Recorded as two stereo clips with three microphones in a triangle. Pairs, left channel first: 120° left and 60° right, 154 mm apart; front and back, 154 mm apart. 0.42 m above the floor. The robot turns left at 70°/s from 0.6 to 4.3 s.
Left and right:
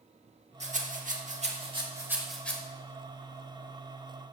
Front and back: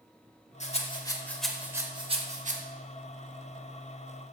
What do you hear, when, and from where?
0.6 s a rattle: 30° right, 0.8 m; by 2.6 s 165° right, 0.8 m